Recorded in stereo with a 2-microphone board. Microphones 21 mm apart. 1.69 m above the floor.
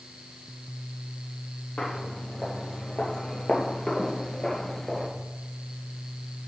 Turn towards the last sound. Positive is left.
turn(degrees=5)  # may be behind; listen again after turning